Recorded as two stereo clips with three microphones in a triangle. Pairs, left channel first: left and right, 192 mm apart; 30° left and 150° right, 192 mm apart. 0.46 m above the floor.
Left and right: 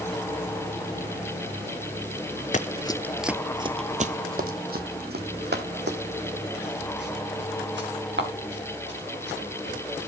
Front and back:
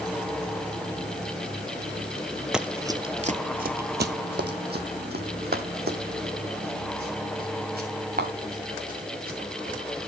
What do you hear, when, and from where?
2.5 s running footsteps: 125° left, 0.6 m; by 10.1 s 110° right, 4 m